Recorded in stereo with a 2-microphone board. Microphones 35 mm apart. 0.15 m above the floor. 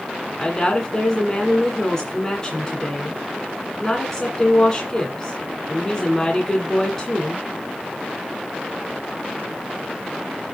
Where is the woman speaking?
20° left (ahead or behind), 1.8 m.